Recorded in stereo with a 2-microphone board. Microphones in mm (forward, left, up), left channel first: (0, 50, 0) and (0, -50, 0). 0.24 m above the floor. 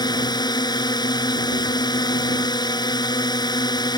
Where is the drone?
45° left (ahead or behind).